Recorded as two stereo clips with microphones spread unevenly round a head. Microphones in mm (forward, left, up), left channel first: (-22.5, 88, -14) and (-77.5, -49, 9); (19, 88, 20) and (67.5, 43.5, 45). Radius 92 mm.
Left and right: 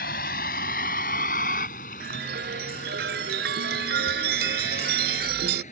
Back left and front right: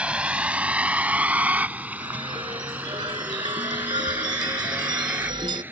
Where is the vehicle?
25° left; by 5.7 s 15° left.